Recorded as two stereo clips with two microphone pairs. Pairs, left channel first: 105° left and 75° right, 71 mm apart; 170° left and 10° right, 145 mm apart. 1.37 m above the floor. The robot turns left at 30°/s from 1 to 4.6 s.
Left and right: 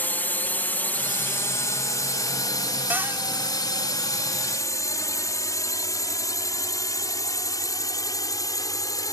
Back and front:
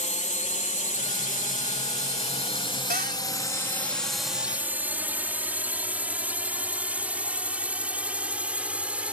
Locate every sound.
0.0 s a drone: 160° left; by 9.1 s 70° left
2.9 s a cupboard door: 10° right; by 3.2 s 20° right